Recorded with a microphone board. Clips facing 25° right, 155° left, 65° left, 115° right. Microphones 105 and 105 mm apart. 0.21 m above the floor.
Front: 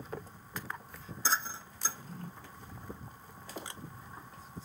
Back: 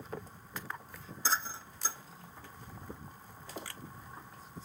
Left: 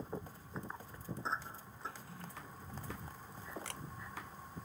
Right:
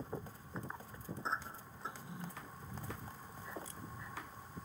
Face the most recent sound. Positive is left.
turn(degrees=45)